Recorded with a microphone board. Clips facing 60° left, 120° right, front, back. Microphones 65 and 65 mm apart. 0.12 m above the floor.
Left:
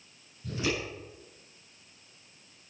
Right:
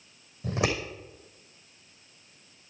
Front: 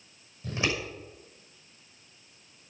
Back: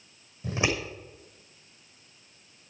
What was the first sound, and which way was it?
Scissors, 115° right.